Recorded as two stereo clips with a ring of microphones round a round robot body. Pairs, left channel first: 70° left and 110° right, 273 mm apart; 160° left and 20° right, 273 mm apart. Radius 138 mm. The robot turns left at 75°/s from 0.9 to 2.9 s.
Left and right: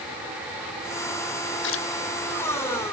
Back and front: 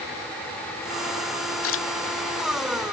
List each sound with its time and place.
1.6 s a splash: 120° left; by 1.9 s 100° left